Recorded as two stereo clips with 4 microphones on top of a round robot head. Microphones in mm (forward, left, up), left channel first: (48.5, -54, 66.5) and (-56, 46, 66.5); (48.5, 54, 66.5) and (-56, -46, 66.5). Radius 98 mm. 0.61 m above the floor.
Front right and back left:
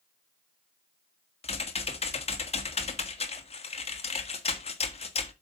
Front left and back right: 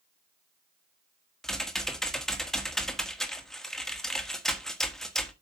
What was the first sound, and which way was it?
Typing on a keyboard, 45° right.